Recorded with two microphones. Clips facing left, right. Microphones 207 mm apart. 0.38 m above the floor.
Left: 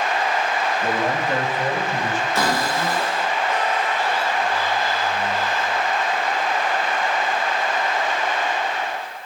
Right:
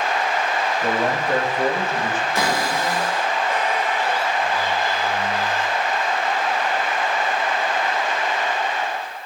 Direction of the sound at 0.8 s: 30° right (ahead or behind).